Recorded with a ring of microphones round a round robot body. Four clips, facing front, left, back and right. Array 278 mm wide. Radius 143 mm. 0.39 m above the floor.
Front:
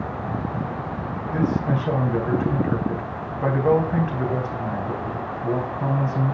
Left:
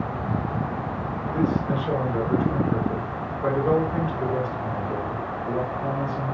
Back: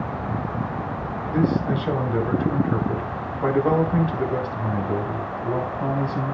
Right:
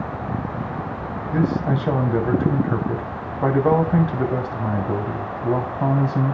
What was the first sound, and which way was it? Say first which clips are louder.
A man speaking: right 3 dB, back 1 dB; 80° right.